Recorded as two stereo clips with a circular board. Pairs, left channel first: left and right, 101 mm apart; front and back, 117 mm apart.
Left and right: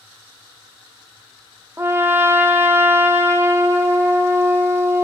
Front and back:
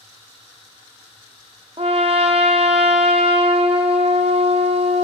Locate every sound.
1.8 s a trumpet: 155° right, 0.7 m